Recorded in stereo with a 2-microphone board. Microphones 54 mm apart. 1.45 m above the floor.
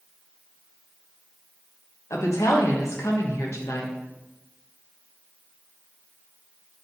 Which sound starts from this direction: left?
A woman speaking, at 2.1 s.